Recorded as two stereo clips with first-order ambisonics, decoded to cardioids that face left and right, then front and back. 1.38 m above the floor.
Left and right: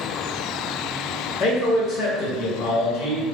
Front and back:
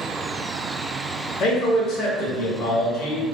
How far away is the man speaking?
About 0.9 m.